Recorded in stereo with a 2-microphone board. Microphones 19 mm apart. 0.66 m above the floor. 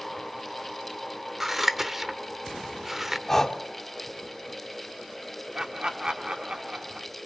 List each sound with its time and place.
1.4 s scissors: 20° right (ahead or behind), 0.9 m
3.3 s breathing: 15° left (ahead or behind), 1.8 m
5.5 s laughter: 35° right (ahead or behind), 1.8 m